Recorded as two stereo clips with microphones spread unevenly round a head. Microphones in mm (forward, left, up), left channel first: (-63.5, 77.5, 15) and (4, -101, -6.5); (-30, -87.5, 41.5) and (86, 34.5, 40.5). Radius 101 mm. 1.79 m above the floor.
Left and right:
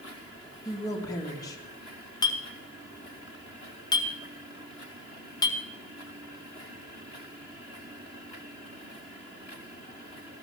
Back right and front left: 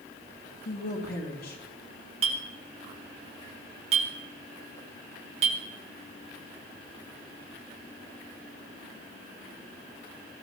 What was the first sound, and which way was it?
A woman speaking, straight behind.